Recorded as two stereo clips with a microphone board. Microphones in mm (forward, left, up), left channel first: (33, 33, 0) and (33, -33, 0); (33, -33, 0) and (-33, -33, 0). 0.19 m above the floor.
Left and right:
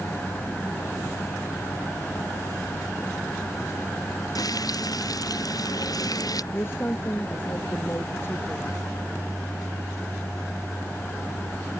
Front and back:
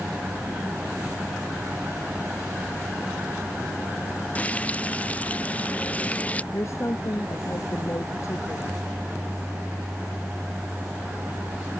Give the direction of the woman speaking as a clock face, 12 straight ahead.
11 o'clock.